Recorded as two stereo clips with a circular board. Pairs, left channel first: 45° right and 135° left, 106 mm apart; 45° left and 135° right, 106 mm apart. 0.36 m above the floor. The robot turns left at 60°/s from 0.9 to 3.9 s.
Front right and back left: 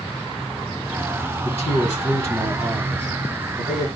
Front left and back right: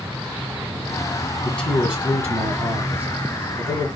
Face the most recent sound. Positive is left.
turn(degrees=-175)